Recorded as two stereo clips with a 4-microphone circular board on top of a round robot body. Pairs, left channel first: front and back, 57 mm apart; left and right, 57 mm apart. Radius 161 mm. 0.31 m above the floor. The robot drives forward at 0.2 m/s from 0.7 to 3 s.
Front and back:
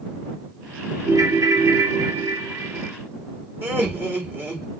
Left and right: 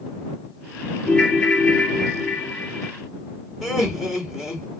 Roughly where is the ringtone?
Behind.